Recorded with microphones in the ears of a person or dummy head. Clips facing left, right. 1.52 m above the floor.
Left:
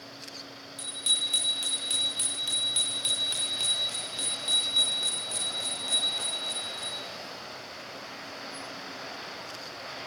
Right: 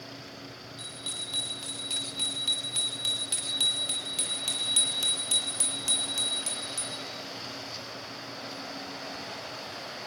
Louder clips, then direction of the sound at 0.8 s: Right 1 dB; 30° left (ahead or behind).